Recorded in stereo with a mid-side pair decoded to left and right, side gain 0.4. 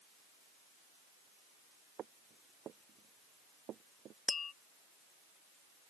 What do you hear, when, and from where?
2.0 s footsteps: 65° right
4.3 s tapping: 45° left